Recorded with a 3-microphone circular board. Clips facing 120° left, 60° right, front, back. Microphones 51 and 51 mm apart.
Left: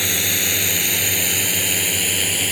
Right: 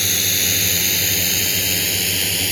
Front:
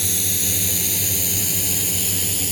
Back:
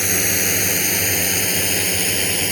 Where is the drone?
170° right; by 2.5 s 165° right.